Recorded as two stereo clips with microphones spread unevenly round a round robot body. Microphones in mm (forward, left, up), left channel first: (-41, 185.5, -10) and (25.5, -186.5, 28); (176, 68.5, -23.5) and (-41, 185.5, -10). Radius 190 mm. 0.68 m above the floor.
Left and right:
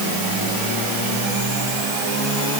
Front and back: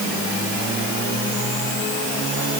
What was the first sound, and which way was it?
Only background noise.